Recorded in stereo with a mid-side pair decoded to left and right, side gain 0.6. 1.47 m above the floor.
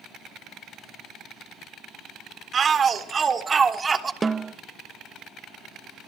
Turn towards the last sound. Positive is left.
turn(degrees=-20)